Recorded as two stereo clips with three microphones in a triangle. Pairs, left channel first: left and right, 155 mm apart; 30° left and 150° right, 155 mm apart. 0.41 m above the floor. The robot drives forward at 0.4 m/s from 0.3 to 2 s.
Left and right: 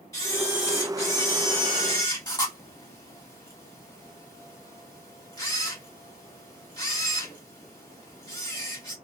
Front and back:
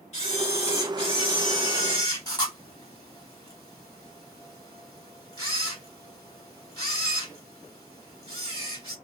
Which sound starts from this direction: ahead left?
A camera shutter, at 0.1 s.